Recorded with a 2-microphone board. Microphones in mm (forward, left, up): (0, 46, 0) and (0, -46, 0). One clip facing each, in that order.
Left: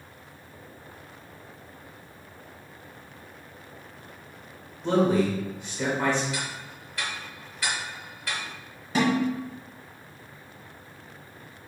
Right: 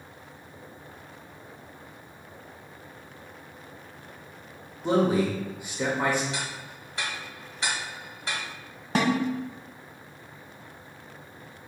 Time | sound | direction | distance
4.8 | a man speaking | 10° right (ahead or behind) | 0.9 m
6.3 | ticking | 25° right (ahead or behind) | 0.9 m
8.9 | a snare drum | 50° right (ahead or behind) | 0.9 m